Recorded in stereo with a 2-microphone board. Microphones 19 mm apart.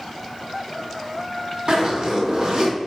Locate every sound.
1.7 s a zipper: 50° right (ahead or behind), 2.0 m